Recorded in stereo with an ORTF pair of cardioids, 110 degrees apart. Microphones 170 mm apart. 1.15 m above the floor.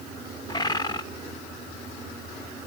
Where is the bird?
25° left, 0.9 m.